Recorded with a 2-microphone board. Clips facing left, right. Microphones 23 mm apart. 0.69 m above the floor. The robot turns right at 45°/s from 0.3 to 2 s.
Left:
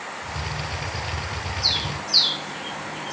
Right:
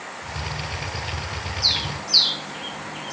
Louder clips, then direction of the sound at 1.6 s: Right 2 dB; 30° right (ahead or behind).